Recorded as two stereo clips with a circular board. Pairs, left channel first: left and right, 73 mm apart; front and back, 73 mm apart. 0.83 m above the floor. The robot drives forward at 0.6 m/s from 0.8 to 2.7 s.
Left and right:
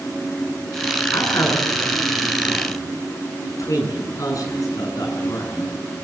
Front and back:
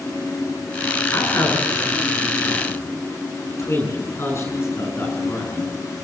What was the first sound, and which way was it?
A man speaking, 45° left.